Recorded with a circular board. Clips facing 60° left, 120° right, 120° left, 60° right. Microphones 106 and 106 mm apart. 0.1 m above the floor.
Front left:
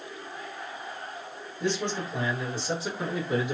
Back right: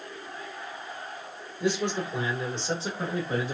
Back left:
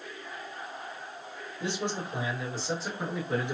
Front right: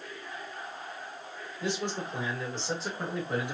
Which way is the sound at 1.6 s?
170° left.